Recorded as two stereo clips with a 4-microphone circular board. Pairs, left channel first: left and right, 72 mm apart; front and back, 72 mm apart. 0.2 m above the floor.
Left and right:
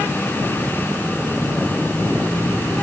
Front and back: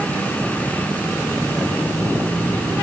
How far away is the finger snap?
No finger snap in this recording.